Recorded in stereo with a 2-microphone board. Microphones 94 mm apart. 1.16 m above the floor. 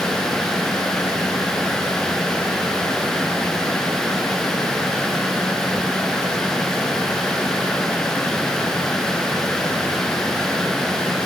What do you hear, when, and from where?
Only background noise.